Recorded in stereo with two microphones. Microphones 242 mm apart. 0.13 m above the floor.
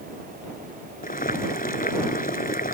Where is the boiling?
35° left (ahead or behind).